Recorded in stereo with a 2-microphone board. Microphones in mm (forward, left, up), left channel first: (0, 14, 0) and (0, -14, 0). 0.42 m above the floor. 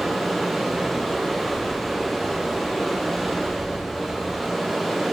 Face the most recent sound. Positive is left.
turn(degrees=0)  # may be behind; listen again after turning